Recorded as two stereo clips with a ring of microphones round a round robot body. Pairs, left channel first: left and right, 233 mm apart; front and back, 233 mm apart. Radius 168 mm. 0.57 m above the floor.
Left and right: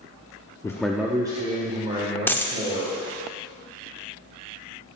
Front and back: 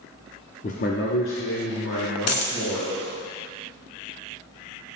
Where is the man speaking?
25° left, 0.6 m; by 2.9 s 30° right, 2.5 m.